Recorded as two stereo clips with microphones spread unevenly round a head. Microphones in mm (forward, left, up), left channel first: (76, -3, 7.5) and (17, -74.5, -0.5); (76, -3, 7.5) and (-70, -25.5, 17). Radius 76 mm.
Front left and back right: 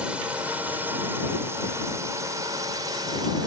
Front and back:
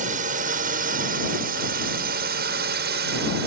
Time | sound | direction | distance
0.0 | a drone | 150° left | ?